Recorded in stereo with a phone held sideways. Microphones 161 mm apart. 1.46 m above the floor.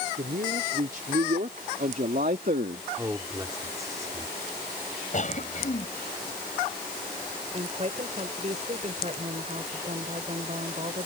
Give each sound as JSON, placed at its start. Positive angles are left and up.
{"t": 0.2, "sound": "a man speaking", "side_deg": -60}
{"t": 3.0, "sound": "a man speaking", "side_deg": -20}
{"t": 5.1, "sound": "a cough", "side_deg": 50}
{"t": 7.5, "sound": "a woman speaking", "side_deg": -45}